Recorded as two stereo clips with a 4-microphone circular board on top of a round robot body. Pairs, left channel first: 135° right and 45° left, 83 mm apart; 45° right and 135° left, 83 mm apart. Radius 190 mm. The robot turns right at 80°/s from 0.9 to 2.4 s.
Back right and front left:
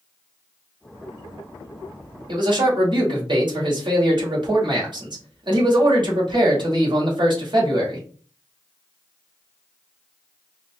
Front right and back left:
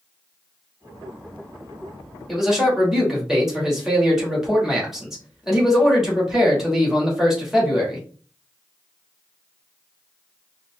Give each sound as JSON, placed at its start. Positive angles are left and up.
{"t": 2.3, "sound": "a man speaking", "azimuth_deg": 40, "distance_m": 2.5}